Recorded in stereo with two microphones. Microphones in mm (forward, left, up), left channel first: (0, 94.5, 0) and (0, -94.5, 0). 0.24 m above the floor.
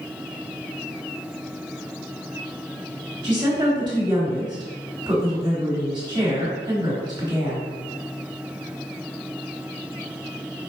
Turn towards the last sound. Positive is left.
turn(degrees=-25)  # may be behind; listen again after turning